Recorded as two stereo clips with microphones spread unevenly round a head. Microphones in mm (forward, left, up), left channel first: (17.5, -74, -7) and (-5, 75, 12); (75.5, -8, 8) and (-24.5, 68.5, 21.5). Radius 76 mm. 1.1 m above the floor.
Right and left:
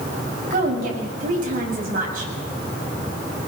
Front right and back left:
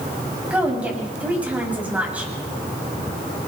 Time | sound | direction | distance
0.5 | a woman speaking | 65° left | 8 m